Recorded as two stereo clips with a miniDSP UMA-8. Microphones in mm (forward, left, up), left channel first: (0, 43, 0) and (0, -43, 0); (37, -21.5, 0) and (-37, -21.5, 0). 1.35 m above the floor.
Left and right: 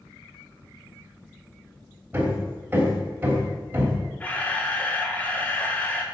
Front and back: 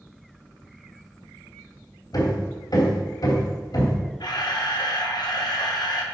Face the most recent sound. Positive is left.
turn(degrees=20)